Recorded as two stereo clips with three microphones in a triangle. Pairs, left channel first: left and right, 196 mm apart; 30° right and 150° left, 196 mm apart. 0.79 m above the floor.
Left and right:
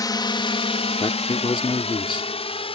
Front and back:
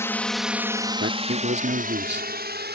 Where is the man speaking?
150° left.